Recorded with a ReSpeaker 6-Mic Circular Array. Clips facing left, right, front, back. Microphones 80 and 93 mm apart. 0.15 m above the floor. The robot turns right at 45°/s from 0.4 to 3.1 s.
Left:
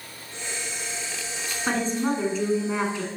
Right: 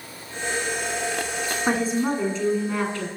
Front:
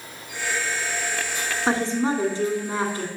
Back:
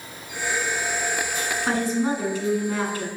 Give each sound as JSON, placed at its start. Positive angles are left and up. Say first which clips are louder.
{"t": 1.7, "sound": "a woman speaking", "louder": "right 1 dB, front 1 dB", "azimuth_deg": -25, "distance_m": 1.4}